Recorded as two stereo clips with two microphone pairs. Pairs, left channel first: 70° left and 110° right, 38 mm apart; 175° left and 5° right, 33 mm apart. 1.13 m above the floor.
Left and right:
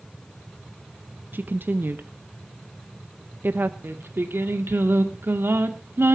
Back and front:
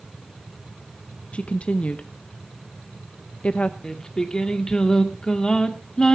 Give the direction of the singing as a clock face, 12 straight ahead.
4 o'clock.